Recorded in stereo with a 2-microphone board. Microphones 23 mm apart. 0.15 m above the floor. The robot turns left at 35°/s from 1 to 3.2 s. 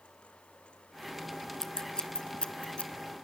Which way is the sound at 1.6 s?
25° left (ahead or behind).